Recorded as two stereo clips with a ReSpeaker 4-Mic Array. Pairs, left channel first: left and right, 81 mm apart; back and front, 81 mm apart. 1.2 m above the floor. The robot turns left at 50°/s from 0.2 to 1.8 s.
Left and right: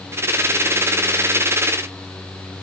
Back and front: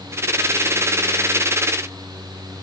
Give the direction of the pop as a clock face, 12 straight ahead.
No pop in this recording.